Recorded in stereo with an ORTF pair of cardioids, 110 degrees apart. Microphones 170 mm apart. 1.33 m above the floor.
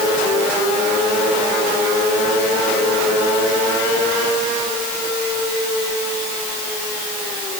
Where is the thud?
I don't hear a thud.